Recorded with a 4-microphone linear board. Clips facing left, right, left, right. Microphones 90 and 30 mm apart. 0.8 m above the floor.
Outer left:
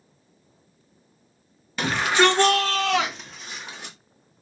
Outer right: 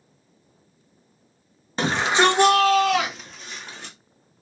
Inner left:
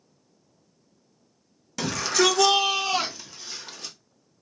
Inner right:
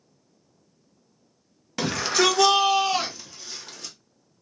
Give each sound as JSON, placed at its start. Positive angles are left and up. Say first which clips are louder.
{"t": 1.8, "sound": "a shout", "louder": "even, inner right 1 dB", "side_deg": -30, "distance_m": 0.9}